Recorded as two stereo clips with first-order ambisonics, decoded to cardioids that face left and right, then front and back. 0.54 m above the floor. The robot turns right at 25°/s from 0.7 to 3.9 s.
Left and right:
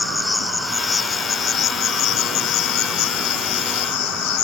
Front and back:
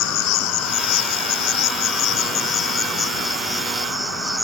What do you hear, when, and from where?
0.0 s an insect: 10° left; by 4.5 s 90° left